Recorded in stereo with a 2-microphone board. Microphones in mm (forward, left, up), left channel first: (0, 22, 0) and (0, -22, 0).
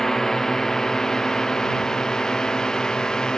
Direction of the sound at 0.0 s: 10° left (ahead or behind).